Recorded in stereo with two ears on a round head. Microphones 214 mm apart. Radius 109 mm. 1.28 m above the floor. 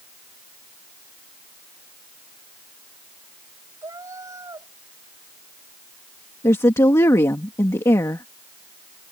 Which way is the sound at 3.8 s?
15° right (ahead or behind).